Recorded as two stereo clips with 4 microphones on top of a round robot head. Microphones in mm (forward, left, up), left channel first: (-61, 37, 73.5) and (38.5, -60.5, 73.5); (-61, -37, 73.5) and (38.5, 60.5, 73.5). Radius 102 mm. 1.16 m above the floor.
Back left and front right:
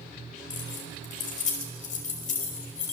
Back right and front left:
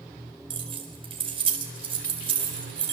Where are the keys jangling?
100° left, 4.5 m.